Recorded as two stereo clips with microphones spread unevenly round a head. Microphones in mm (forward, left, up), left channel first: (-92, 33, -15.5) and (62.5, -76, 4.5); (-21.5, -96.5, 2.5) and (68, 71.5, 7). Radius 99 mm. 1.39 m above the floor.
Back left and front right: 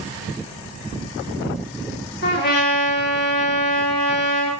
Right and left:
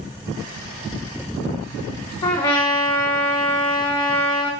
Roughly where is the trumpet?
Behind.